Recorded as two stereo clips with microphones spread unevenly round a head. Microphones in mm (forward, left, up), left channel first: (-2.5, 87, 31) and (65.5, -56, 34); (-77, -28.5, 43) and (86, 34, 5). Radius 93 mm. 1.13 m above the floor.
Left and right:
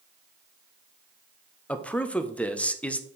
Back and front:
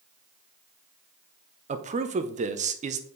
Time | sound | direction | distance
1.7 | a man speaking | 35° left | 0.8 m